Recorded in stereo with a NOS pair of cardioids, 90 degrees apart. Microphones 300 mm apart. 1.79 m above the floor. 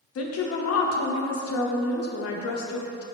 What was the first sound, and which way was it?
A woman speaking, 55° left.